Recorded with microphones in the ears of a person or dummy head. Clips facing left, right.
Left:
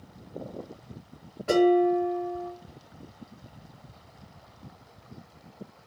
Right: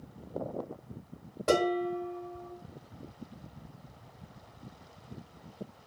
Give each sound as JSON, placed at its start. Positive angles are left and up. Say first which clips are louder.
{"t": 1.5, "sound": "dishes clattering", "louder": "left 8 dB", "side_deg": -60, "distance_m": 1.5}